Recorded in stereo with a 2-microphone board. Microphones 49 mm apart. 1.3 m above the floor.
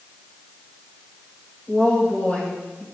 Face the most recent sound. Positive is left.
turn(degrees=25)  # may be behind; listen again after turning